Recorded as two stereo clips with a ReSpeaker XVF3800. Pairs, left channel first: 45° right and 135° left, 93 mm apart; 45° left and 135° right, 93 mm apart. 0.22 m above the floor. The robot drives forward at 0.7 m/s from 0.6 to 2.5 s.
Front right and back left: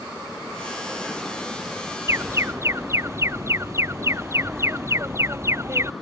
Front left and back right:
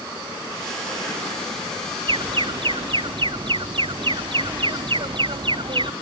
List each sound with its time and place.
2.1 s an alarm: 165° right